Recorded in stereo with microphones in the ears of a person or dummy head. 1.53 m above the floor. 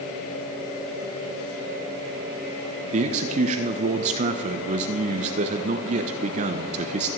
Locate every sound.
2.9 s a man speaking: 45° right (ahead or behind), 0.9 m